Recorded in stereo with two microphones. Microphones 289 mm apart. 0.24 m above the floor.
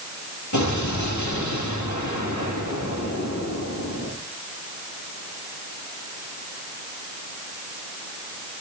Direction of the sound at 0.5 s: 80° left.